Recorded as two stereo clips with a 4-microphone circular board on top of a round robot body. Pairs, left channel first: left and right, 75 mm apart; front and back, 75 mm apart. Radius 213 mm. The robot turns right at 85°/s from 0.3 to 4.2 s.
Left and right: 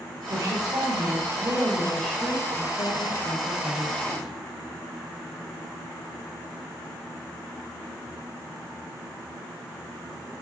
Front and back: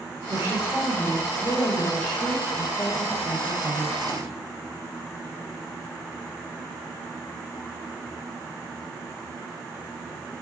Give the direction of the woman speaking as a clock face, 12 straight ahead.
5 o'clock.